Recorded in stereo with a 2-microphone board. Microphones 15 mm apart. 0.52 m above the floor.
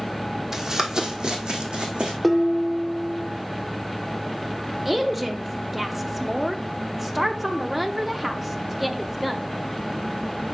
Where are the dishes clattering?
5° left (ahead or behind), 0.7 m.